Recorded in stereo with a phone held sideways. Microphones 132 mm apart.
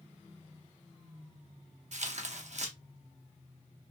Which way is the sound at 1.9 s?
60° right (ahead or behind).